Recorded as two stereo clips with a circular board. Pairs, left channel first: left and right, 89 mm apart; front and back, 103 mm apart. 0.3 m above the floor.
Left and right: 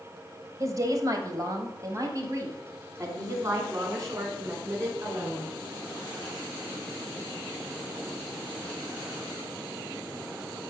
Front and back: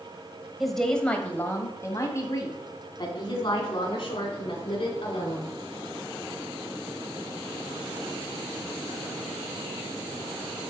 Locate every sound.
0.6 s a woman speaking: 95° right, 1.3 m; by 5.5 s 35° right, 4 m